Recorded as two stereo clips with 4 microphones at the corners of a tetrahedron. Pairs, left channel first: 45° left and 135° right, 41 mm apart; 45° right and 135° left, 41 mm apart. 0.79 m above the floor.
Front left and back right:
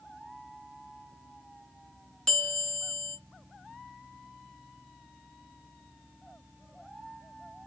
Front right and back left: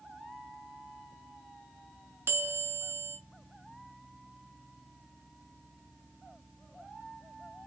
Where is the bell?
120° left, 1.5 m.